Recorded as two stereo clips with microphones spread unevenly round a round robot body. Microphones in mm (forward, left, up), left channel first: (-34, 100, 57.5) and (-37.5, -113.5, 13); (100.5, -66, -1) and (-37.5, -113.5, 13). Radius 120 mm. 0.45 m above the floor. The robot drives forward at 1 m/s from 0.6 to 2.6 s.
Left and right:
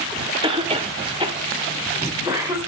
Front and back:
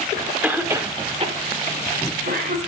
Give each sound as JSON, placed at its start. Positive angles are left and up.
{"t": 0.4, "sound": "a cough", "azimuth_deg": -85, "distance_m": 1.2}